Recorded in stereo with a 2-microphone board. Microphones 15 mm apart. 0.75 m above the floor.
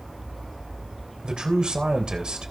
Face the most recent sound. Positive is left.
turn(degrees=-75)  # may be behind; listen again after turning